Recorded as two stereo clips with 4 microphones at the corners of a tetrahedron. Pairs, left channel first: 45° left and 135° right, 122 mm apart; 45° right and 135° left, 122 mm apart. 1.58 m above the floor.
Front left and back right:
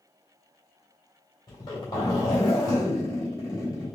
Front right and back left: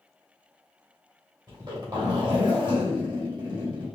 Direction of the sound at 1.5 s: 95° left.